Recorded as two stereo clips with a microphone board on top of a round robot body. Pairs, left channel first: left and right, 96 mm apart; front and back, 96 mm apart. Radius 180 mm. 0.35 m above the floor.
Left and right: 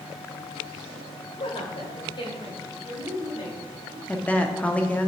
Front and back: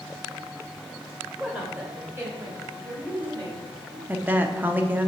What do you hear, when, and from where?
1.4 s a woman speaking: 105° left, 1.9 m; by 4.0 s 140° left, 2.5 m
4.1 s a woman speaking: 140° left, 0.9 m